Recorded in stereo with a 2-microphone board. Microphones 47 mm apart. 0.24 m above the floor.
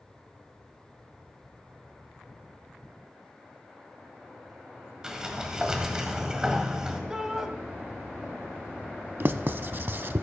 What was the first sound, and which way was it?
A sliding door, 15° right (ahead or behind).